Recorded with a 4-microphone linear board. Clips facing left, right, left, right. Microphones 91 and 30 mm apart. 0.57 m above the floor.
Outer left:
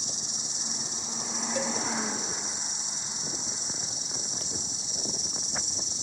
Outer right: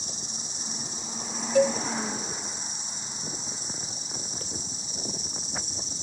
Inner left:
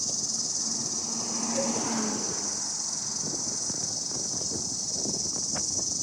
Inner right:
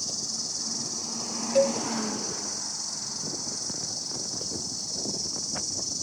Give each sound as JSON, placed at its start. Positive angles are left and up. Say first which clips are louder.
{"t": 0.0, "sound": "an insect", "louder": "even, inner left 1 dB", "side_deg": -40, "distance_m": 4.5}
{"t": 1.6, "sound": "a cowbell", "louder": "outer right 11 dB, inner right 9 dB", "side_deg": -80, "distance_m": 1.3}